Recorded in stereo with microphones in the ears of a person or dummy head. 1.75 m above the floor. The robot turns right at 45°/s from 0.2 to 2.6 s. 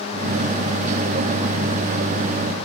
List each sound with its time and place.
Only background noise.